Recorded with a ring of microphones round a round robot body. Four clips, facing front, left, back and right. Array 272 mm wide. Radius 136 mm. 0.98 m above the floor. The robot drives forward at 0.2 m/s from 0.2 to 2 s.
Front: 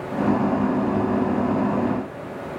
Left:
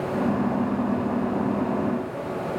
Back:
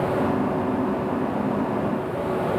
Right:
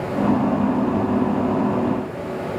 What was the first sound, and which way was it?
Only background noise.